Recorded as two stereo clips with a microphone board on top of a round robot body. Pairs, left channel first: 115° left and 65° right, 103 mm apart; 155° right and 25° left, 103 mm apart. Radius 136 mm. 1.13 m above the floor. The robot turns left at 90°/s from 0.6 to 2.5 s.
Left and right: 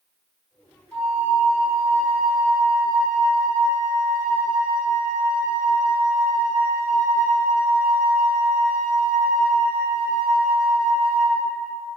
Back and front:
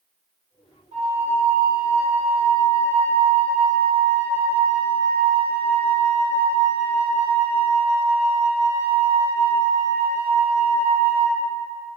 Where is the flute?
30° left, 1.2 m; by 11.4 s 115° right, 1.2 m.